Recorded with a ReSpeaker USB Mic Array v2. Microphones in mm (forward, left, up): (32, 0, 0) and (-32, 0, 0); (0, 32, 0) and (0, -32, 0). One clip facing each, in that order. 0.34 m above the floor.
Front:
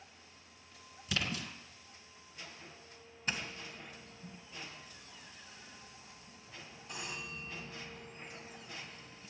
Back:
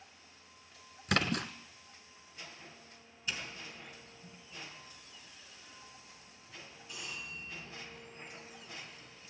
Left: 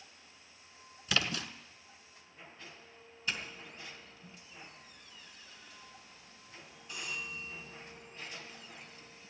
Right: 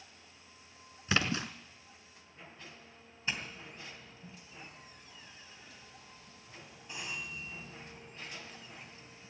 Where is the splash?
155° right, 1.2 m.